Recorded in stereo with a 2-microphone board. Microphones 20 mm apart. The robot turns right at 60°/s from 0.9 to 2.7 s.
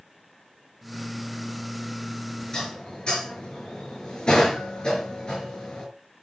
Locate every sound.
2.5 s dishes clattering: 40° left (ahead or behind), 3.5 m; by 5.9 s 50° left (ahead or behind), 3.5 m